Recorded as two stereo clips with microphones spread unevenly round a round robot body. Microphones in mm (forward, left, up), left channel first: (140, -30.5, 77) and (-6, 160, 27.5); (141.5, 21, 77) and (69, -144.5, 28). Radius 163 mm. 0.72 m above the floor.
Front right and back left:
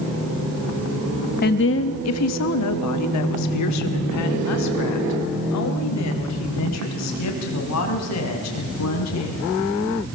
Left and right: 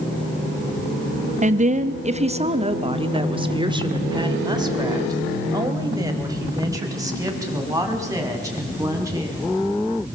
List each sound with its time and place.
1.4 s a woman speaking: 110° right, 0.8 m; by 9.5 s 40° right, 6.5 m